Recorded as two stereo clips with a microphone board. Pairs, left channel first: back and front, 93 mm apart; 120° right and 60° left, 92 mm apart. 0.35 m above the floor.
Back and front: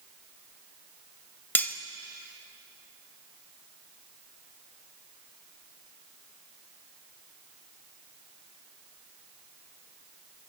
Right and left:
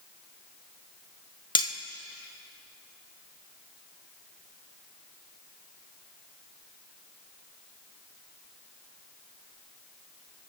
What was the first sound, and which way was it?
Cutlery clinking, 115° right.